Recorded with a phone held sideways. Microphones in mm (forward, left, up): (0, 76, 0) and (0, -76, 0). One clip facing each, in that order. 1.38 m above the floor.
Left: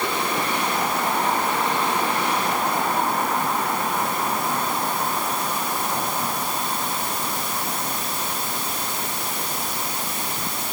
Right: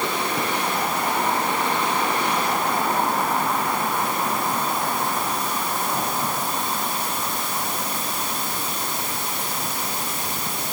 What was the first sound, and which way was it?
Only background noise.